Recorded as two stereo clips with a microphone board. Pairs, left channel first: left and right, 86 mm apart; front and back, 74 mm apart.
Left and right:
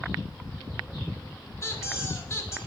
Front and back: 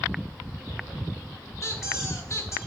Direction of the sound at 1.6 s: 40° left.